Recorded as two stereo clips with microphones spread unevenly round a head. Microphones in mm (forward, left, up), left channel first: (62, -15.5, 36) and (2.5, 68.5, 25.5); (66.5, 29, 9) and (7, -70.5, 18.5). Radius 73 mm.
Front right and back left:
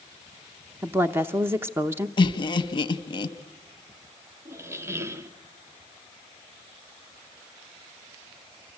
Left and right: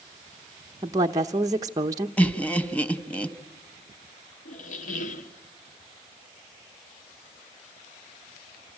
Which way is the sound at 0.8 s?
Straight behind.